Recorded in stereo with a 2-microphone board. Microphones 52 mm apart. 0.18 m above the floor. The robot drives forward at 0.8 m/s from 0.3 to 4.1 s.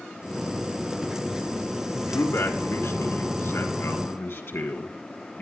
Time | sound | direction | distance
2.0 | a man speaking | 55° left (ahead or behind) | 2 m